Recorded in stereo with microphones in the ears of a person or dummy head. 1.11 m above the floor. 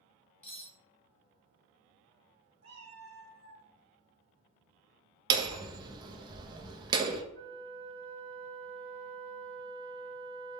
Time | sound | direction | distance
0.4 | cutlery clinking | 15° left (ahead or behind) | 1.5 m
2.6 | a cat meowing | 35° right (ahead or behind) | 0.6 m
5.3 | hammering | 25° right (ahead or behind) | 0.6 m
7.3 | a flute | 10° left (ahead or behind) | 0.6 m